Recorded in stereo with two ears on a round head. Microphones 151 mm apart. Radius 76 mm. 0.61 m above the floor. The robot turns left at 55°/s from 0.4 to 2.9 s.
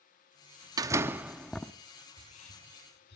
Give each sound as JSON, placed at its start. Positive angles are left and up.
{"t": 0.8, "sound": "a door slam", "azimuth_deg": -140, "distance_m": 0.7}
{"t": 2.1, "sound": "whispering", "side_deg": 30, "distance_m": 6.0}